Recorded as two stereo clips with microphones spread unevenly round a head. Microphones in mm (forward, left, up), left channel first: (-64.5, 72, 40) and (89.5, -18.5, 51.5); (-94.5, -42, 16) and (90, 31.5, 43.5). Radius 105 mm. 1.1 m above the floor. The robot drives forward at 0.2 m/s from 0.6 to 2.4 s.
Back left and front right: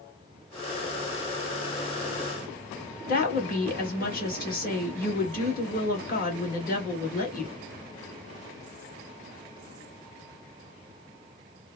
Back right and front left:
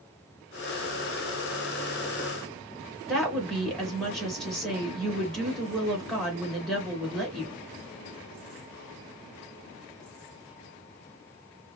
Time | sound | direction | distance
3.1 | a woman speaking | 115° left | 1.8 m